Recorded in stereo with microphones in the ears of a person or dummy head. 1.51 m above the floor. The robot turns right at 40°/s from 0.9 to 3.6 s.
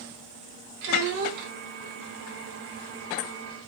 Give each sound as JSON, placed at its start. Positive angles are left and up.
{"t": 0.8, "sound": "a child speaking", "side_deg": -65, "distance_m": 1.0}